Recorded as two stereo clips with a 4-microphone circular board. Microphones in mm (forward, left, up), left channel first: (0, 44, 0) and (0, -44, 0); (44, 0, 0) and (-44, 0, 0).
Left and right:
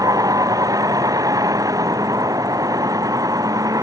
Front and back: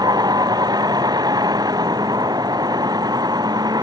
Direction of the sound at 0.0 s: 140° right.